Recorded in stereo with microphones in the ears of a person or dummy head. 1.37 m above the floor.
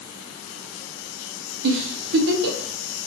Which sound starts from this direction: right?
A giggle, at 1.6 s.